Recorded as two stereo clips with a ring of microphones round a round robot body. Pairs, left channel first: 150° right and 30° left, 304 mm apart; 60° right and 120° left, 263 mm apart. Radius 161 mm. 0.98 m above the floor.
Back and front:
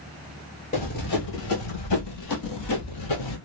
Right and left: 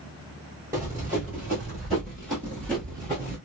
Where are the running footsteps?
170° right, 1.0 m; by 3.4 s 145° right, 2 m.